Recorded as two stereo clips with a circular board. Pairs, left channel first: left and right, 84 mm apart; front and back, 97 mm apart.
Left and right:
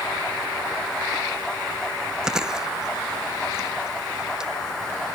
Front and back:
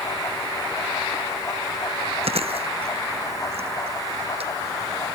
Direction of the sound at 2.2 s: 170° right.